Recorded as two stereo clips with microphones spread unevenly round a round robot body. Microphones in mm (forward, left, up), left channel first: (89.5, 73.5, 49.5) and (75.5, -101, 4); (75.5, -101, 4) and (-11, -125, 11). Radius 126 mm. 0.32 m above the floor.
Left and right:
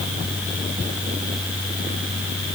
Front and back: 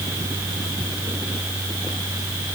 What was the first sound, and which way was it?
Only background noise.